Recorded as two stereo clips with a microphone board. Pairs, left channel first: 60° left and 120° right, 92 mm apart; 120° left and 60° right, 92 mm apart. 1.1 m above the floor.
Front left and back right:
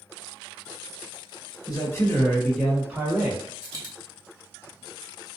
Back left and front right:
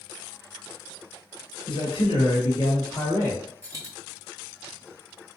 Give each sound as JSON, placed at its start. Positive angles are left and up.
{"t": 1.7, "sound": "a man speaking", "azimuth_deg": 110, "distance_m": 0.9}
{"t": 3.6, "sound": "a dropped coin", "azimuth_deg": -100, "distance_m": 1.4}